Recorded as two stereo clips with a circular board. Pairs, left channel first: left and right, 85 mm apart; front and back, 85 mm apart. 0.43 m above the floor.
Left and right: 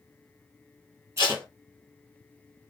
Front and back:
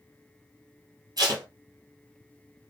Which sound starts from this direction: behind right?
Tape being pulled, at 1.2 s.